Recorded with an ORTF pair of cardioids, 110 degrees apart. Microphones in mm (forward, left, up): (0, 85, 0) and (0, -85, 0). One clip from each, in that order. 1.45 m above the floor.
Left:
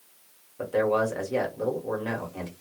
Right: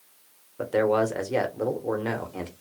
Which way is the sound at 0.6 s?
25° right.